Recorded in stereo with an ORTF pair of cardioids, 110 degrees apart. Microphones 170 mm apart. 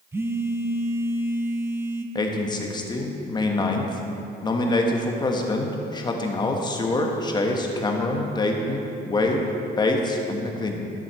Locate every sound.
0.1 s a phone buzzing: 15° right, 0.6 m
2.1 s a man speaking: 25° left, 1.2 m